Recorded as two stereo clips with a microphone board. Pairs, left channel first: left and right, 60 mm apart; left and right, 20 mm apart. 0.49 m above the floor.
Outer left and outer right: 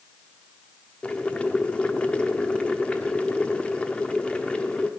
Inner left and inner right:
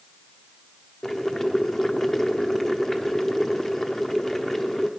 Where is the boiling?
20° left (ahead or behind), 0.8 m.